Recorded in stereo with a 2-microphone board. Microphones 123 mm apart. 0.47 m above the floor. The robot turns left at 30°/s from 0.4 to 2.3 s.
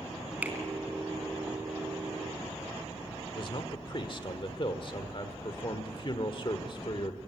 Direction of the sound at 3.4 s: 45° left (ahead or behind).